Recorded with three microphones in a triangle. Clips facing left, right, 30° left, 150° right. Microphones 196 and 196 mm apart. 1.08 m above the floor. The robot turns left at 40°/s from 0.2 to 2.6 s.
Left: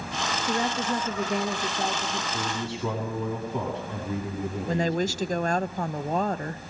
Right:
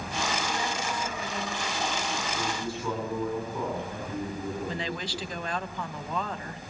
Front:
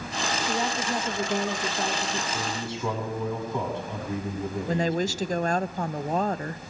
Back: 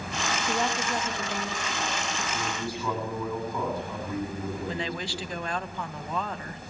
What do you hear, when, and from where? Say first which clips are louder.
0.5 s a woman speaking: left 5 dB, back 1 dB; 120° left, 1.9 m; by 2.2 s 50° left, 1.9 m
2.3 s a man speaking: left 1 dB, front 1 dB; 110° left, 6.5 m; by 5.4 s 100° left, 6.5 m
4.7 s a woman speaking: left 8 dB, front 7 dB; 60° left, 0.7 m